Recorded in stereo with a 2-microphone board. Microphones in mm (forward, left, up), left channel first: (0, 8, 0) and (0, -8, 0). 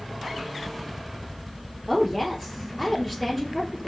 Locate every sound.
1.9 s a woman speaking: 5° left (ahead or behind), 3 m